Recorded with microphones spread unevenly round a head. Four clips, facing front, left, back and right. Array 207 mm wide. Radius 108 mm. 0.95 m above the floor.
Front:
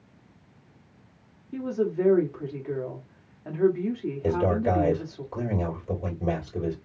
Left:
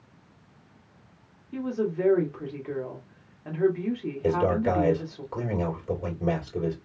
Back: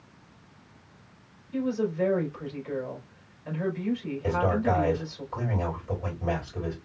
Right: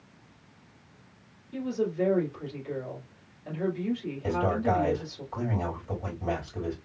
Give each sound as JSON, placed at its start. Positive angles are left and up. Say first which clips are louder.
{"t": 1.5, "sound": "a woman speaking", "louder": "left 1 dB, front 1 dB", "azimuth_deg": 40, "distance_m": 2.0}
{"t": 4.2, "sound": "a man speaking", "louder": "left 3 dB, front 1 dB", "azimuth_deg": 55, "distance_m": 3.5}